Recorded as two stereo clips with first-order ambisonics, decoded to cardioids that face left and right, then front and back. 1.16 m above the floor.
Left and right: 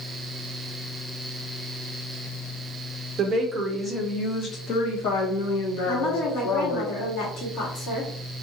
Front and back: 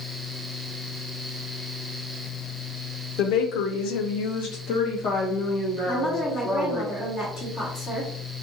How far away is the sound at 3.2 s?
About 0.8 m.